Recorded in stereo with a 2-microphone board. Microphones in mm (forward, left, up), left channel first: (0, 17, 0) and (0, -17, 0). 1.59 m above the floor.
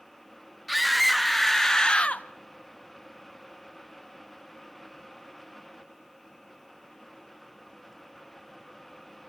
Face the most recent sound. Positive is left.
turn(degrees=50)  # may be behind; listen again after turning